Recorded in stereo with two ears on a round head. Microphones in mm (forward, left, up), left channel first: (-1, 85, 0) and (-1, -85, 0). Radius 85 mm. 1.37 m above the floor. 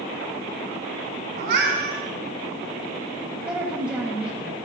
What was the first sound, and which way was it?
A cat meowing, 60° right (ahead or behind).